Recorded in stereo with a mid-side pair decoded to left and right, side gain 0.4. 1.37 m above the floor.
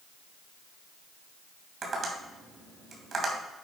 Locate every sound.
1.8 s tapping: 55° right, 2.5 m